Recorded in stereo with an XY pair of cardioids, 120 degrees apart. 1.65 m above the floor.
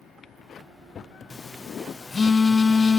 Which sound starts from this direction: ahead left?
A phone buzzing, at 1.3 s.